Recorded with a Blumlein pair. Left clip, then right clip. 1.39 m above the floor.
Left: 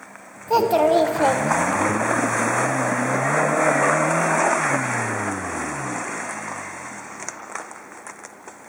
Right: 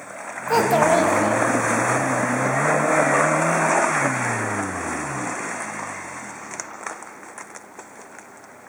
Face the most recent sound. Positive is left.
turn(degrees=55)